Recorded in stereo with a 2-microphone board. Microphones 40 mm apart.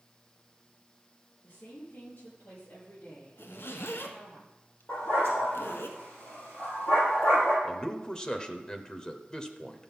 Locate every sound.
1.4 s a woman speaking: 45° left (ahead or behind), 6 m; by 4.4 s 55° left (ahead or behind), 9 m
3.4 s a zipper: 85° left, 1.4 m
4.9 s a dog barking: 45° left (ahead or behind), 4.5 m
7.6 s a man speaking: 20° left (ahead or behind), 0.9 m